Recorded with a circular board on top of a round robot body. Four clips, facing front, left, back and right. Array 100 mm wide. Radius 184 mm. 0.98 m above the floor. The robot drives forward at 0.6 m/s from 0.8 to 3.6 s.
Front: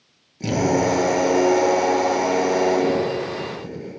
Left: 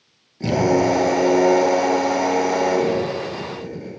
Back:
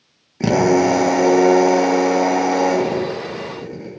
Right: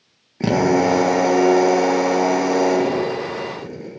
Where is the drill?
145° right, 1.8 m; by 3.9 s 160° right, 3 m.